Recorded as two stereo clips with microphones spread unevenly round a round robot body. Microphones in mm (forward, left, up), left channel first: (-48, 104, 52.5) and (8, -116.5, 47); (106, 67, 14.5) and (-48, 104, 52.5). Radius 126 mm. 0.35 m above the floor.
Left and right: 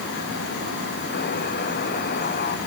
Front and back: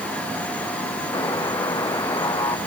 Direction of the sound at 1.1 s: 50° left.